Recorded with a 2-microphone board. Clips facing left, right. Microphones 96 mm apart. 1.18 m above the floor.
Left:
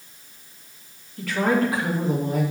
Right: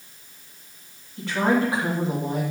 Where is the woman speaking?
25° right (ahead or behind), 2.5 m.